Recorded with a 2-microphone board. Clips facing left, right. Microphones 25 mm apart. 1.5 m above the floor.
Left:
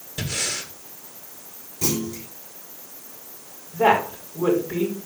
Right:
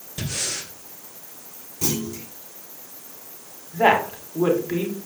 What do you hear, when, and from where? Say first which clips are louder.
0.2 s breathing: left 1 dB; 15° left (ahead or behind), 1.9 m
1.8 s a clunk: left 1 dB; centre (ahead or behind), 3.5 m
3.7 s a woman speaking: right 1 dB; 45° right (ahead or behind), 4 m